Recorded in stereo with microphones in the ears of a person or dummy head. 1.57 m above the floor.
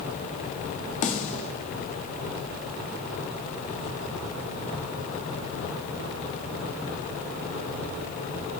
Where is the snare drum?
45° left (ahead or behind), 1.3 m.